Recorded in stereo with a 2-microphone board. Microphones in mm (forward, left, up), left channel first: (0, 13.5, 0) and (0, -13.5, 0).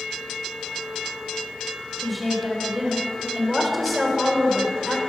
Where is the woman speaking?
Centre (ahead or behind), 1.6 m.